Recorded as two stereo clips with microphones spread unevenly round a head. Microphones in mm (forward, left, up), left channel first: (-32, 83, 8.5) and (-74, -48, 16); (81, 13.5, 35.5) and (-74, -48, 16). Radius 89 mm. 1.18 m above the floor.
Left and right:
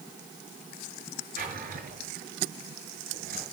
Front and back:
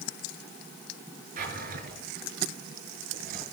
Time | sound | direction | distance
1.4 | a drawer | 120° right | 5.5 m